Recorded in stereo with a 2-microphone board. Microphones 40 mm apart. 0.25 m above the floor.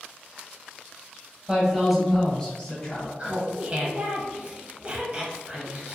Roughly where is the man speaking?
Right.